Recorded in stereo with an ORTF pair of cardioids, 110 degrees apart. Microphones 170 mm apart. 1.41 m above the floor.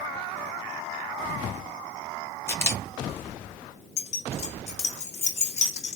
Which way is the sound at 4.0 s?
40° left.